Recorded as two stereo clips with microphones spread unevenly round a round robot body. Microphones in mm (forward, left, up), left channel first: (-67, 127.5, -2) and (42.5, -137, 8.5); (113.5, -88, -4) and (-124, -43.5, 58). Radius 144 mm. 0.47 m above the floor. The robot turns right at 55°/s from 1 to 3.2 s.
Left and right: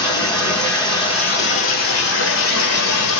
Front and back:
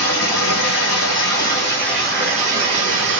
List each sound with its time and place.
0.0 s running water: 35° left, 1.2 m; by 3.2 s 155° left, 1.2 m